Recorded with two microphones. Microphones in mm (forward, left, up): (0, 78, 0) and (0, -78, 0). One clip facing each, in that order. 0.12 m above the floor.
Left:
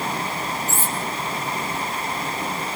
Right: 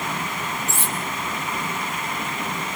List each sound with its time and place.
0.7 s cutlery clinking: 70° right (ahead or behind), 1.9 m